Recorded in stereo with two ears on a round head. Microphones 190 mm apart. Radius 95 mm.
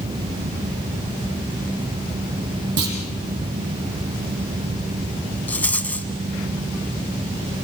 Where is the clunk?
85° right, 5.5 m.